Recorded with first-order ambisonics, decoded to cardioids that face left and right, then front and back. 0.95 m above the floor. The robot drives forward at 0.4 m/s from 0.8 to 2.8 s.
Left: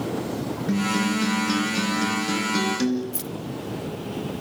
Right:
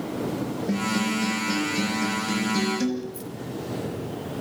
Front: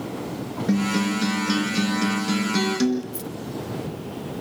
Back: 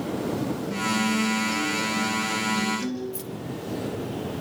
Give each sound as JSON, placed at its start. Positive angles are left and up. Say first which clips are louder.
{"t": 0.7, "sound": "a guitar", "louder": "left 3 dB, front 1 dB", "azimuth_deg": 30, "distance_m": 4.5}
{"t": 3.1, "sound": "keys jangling", "louder": "left 3 dB, front 2 dB", "azimuth_deg": 85, "distance_m": 1.0}